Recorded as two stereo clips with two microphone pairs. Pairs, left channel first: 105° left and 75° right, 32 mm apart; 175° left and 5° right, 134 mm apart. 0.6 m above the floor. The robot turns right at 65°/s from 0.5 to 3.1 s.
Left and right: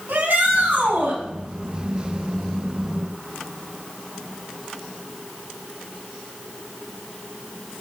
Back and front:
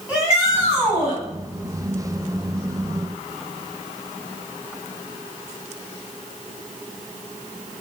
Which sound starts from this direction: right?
A shout, at 0.1 s.